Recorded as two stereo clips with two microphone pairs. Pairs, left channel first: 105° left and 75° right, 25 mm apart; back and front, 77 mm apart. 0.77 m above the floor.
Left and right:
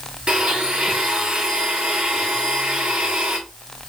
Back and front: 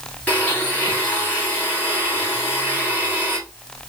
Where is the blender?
110° right, 1.8 m.